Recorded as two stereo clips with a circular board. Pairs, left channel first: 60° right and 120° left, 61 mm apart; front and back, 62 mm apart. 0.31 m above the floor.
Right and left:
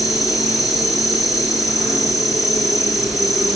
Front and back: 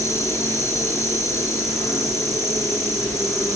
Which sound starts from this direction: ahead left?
An insect, at 0.0 s.